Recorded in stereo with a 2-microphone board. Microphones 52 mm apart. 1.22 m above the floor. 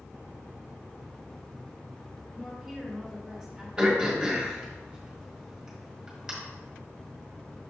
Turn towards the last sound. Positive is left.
turn(degrees=-15)  # may be behind; listen again after turning